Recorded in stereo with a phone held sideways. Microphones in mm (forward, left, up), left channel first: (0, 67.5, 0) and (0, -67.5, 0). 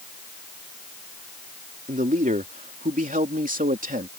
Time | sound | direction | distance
1.9 | a man speaking | 75° right (ahead or behind) | ?